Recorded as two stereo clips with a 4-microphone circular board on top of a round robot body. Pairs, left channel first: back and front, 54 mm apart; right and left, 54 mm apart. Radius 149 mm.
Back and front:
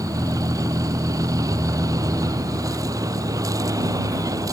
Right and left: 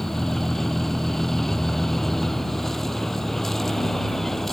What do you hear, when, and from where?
0.0 s a vehicle: 5° right